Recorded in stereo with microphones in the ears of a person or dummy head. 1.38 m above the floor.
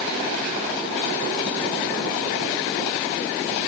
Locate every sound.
Only background noise.